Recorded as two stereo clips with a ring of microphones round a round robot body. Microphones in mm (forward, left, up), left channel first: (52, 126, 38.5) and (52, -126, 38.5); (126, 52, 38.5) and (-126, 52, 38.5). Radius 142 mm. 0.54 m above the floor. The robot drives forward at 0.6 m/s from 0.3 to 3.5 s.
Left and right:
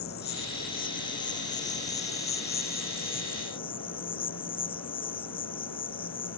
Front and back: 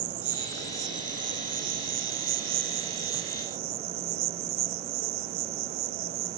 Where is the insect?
150° left; by 6.4 s 165° left.